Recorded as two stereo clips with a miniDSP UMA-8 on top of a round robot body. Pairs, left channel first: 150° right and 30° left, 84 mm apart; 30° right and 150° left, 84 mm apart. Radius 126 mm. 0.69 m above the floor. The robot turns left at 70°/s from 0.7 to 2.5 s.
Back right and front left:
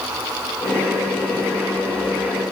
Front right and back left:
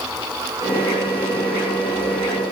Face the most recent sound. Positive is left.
No sound to turn to.